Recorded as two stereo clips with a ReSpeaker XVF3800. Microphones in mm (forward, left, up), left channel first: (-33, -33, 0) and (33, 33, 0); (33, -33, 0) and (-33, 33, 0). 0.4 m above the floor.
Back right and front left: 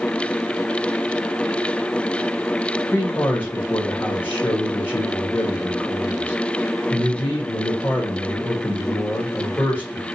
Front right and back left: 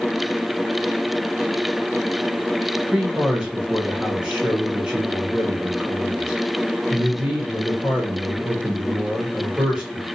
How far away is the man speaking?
About 1.1 m.